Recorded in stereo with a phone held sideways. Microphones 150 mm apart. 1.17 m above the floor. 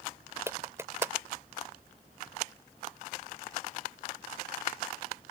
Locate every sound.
0.5 s a clap: 15° right (ahead or behind)